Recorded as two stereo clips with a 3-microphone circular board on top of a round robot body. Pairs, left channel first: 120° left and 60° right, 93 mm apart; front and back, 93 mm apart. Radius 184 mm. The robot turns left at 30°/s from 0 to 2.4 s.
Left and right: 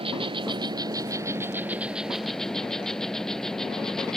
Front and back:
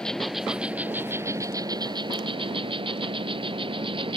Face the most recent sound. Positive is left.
turn(degrees=-155)